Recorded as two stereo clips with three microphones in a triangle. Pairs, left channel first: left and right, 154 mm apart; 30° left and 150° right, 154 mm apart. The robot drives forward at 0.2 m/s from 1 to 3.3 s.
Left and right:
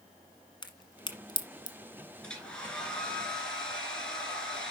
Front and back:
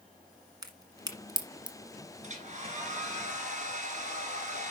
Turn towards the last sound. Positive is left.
turn(degrees=175)